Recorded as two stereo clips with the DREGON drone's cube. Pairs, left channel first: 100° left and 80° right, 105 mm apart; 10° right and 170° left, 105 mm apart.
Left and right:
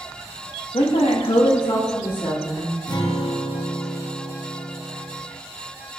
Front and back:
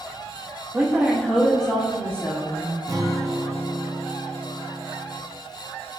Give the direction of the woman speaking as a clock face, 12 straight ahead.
9 o'clock.